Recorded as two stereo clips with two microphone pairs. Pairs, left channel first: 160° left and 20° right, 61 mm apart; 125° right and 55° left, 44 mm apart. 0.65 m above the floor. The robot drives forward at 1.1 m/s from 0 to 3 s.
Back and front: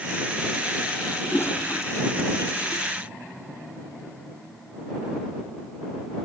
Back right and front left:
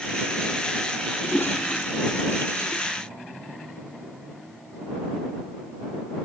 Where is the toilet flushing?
155° right; by 2.8 s 160° right.